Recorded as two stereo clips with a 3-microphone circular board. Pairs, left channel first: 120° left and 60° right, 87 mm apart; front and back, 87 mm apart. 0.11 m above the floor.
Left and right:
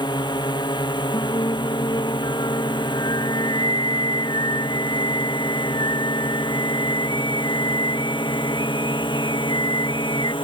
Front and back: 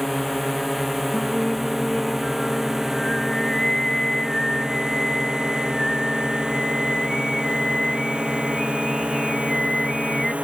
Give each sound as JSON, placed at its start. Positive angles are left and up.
{"t": 0.0, "sound": "a drone", "azimuth_deg": 90}
{"t": 1.1, "sound": "singing", "azimuth_deg": 85}